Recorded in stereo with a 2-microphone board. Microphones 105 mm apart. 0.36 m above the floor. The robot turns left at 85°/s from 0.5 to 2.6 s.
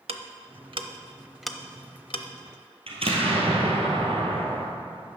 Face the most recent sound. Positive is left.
turn(degrees=-65)  # may be behind; listen again after turning